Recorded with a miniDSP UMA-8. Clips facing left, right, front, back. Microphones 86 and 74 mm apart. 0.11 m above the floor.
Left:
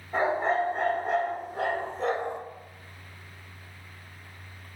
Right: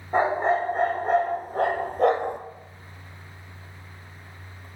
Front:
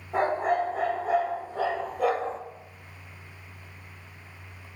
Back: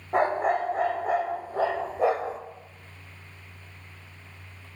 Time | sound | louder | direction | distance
0.1 | a dog barking | right 4 dB, back 1 dB | 145° right | 2.5 m